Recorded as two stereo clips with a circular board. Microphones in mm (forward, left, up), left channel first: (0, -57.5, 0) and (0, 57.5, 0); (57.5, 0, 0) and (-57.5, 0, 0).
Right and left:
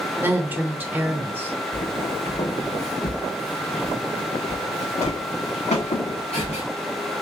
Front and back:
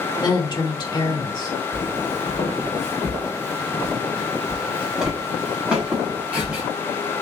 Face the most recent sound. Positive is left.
turn(degrees=-100)